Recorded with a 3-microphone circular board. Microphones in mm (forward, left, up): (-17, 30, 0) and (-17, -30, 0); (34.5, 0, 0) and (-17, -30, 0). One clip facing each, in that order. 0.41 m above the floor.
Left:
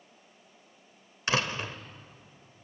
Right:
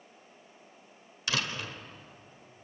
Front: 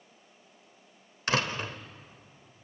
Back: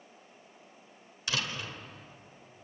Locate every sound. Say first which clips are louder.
1.3 s a door slam: left 4 dB, front 6 dB; 50° left, 1.2 m